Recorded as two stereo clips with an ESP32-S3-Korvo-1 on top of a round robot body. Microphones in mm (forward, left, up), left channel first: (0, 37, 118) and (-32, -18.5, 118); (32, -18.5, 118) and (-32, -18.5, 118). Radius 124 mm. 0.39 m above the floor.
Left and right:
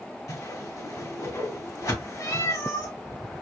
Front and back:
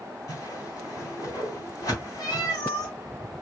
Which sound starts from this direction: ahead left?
A whoosh, at 0.3 s.